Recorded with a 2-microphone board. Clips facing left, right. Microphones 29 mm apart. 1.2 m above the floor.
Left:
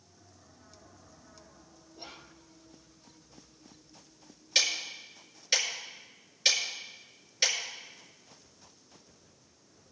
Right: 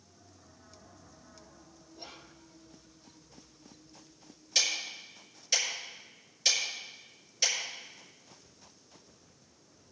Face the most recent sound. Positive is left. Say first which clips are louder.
# left 2 dB
turn(degrees=30)  # may be behind; listen again after turning